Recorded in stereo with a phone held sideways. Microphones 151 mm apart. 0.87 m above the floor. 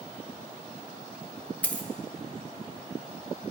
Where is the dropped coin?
10° left (ahead or behind), 0.5 m.